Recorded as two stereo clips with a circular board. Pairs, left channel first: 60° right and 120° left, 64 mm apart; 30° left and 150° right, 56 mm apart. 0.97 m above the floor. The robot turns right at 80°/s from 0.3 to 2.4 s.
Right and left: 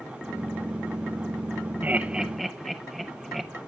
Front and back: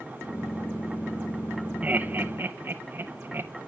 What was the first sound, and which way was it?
Laughter, 165° left.